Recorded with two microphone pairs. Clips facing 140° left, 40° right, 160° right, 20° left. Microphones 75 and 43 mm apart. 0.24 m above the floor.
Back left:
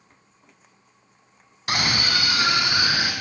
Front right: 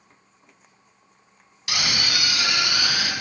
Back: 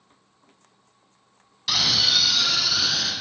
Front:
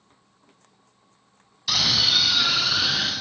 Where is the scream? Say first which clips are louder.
Back left 3 dB, even; 115° left, 1.6 m; by 3.1 s 80° left, 3 m.